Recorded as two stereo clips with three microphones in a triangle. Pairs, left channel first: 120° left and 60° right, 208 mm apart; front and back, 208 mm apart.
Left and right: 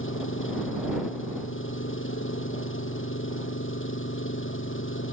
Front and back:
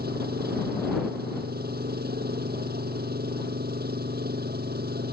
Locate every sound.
0.0 s an engine running: 140° left